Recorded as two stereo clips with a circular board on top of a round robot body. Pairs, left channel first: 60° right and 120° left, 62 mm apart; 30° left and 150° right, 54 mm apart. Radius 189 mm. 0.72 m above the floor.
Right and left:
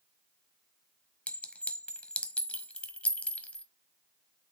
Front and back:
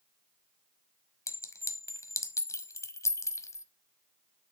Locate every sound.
1.3 s a clink: 10° left, 1.0 m